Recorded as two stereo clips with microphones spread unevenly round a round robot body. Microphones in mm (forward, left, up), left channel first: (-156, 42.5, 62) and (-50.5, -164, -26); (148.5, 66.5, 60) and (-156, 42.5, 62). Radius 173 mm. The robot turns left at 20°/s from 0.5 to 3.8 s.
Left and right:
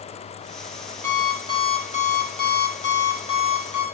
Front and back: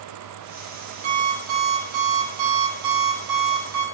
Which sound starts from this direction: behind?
An alarm clock, at 1.0 s.